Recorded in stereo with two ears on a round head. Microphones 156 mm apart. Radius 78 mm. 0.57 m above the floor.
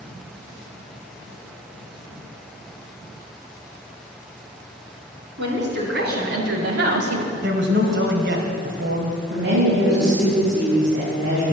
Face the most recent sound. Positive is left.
turn(degrees=-75)  # may be behind; listen again after turning